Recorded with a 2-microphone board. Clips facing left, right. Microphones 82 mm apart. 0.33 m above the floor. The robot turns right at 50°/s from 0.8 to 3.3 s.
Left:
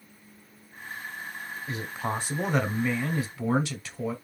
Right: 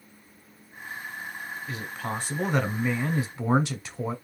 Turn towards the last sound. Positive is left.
turn(degrees=-145)